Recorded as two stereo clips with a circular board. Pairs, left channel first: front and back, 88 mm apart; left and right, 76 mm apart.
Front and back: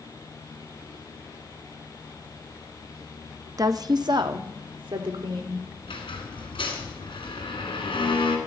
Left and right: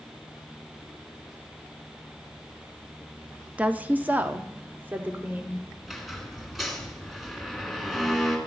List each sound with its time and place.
3.6 s a woman speaking: 155° right, 0.6 m
5.8 s a squeak: straight ahead, 2.5 m